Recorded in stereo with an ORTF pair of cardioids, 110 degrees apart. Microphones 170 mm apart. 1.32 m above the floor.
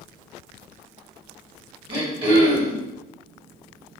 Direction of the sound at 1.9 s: 30° right.